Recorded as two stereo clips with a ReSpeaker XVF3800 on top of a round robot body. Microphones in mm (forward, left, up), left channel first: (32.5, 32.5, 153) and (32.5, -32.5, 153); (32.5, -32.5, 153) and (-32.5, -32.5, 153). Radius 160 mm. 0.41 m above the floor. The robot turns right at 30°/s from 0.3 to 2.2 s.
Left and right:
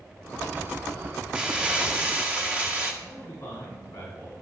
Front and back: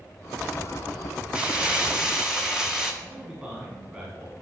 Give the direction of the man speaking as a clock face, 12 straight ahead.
8 o'clock.